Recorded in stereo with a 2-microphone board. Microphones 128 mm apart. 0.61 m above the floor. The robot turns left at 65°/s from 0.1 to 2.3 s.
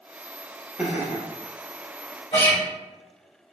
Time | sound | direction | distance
0.8 | laughter | 10° right (ahead or behind) | 0.6 m
2.3 | a guitar | 50° left (ahead or behind) | 1.9 m